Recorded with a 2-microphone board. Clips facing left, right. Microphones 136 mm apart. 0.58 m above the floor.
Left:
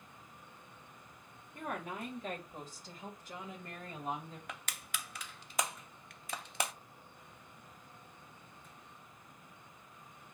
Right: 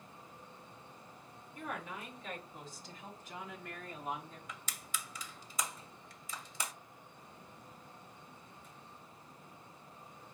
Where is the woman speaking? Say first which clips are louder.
Left 3 dB; 55° left (ahead or behind), 2 m; by 4.4 s 25° left (ahead or behind), 3 m.